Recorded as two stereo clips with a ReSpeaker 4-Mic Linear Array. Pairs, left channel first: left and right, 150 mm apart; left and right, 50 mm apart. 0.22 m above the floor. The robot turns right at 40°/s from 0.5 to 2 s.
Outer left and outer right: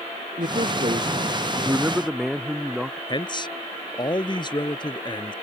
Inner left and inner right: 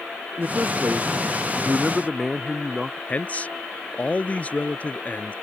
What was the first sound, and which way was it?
A man speaking, 60° right.